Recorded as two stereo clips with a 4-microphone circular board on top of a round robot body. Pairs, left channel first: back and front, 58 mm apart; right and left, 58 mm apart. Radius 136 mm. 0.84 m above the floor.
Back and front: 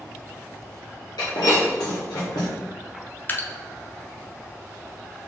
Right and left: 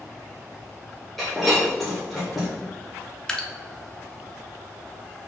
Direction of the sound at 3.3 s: 160° right.